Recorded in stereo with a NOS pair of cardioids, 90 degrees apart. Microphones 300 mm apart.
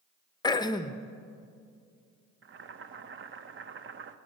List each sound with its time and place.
0.4 s throat clearing: 15° left, 0.7 m
2.4 s boiling: 45° right, 0.9 m